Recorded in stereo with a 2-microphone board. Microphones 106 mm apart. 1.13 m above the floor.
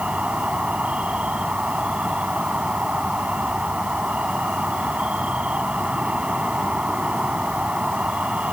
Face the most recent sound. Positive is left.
turn(degrees=-10)  # may be behind; listen again after turning